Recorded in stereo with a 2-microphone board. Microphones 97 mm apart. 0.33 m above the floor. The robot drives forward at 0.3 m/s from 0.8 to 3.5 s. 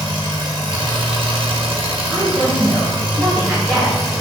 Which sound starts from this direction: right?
An engine running, at 0.0 s.